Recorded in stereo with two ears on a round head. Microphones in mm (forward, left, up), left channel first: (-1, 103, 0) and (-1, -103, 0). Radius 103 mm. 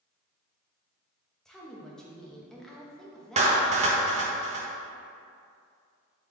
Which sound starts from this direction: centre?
A woman speaking, at 1.4 s.